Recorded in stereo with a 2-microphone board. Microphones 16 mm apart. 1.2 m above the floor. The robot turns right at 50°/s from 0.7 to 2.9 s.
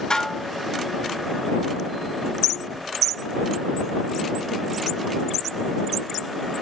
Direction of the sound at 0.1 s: 40° left (ahead or behind).